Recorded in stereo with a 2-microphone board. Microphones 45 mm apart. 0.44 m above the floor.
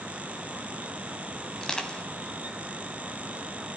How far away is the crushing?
About 3 m.